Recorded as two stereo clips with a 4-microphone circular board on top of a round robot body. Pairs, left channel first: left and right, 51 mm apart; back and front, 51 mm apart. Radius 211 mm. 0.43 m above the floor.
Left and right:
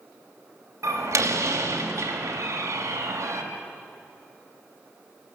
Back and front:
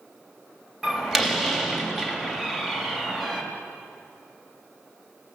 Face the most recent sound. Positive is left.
turn(degrees=-85)